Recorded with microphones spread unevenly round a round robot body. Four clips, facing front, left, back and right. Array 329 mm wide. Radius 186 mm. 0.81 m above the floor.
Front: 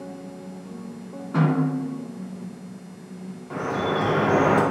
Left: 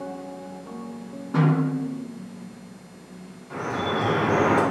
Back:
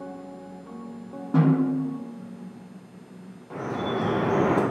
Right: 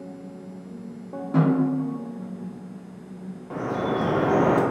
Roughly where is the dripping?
Ahead right.